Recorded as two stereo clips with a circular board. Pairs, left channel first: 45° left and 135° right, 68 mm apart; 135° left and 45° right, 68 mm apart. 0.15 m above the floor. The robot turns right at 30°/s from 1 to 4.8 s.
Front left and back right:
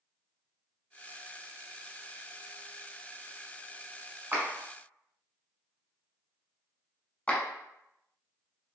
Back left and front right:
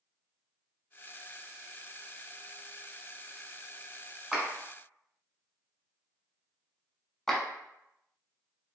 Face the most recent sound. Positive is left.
turn(degrees=65)